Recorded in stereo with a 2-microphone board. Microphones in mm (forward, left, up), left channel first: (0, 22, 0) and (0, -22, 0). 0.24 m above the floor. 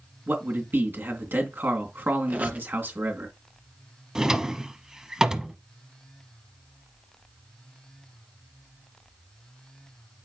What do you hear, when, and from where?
0.3 s a man speaking: 55° right (ahead or behind), 3 m
2.3 s a squeak: 35° right (ahead or behind), 1.8 m
4.2 s a drawer: 15° right (ahead or behind), 0.9 m